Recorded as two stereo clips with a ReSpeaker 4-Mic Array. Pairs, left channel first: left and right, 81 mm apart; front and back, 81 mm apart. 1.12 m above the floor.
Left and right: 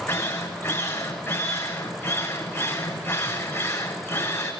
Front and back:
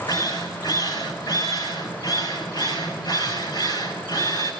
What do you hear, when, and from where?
0.1 s a drill: 25° left, 6.5 m